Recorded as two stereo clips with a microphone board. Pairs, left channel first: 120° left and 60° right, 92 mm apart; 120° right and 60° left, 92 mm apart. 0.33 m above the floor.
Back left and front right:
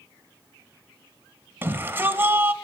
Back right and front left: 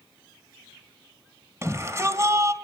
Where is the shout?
5° left, 2.5 m.